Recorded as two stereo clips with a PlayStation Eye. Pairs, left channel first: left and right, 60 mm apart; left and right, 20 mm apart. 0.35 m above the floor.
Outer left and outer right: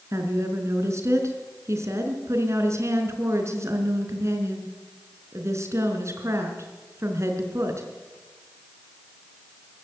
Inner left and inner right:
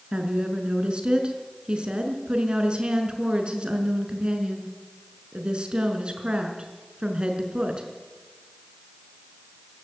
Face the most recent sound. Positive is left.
turn(degrees=-50)  # may be behind; listen again after turning